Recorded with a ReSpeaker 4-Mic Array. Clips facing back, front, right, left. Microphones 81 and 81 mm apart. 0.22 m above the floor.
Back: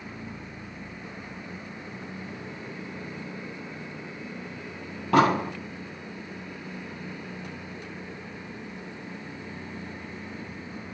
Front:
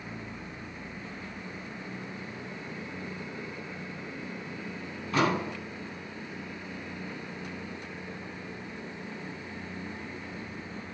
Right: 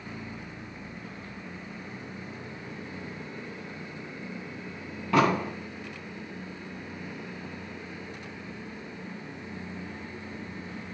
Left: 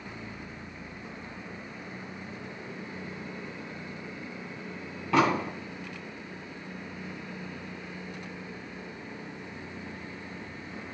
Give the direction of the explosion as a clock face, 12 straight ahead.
6 o'clock.